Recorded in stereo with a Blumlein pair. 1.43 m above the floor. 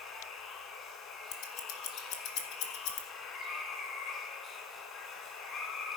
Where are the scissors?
45° left, 2 m.